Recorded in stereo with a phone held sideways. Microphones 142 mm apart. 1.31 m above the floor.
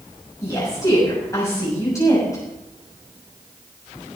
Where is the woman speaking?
25° left (ahead or behind), 7 m.